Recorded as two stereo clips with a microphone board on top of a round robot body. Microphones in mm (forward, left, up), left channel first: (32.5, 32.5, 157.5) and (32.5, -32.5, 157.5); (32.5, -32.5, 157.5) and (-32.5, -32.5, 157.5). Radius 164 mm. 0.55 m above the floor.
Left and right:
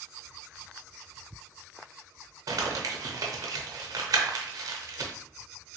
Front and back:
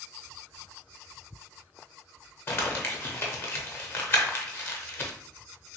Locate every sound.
2.5 s crumpling: 55° right, 0.5 m